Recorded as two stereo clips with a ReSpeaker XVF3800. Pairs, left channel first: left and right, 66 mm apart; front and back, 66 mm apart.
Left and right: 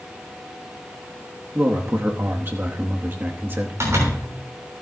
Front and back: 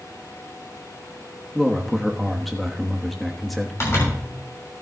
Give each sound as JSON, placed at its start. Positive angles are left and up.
{"t": 1.6, "sound": "a man speaking", "azimuth_deg": -85, "distance_m": 1.2}
{"t": 3.8, "sound": "a zipper", "azimuth_deg": -45, "distance_m": 6.0}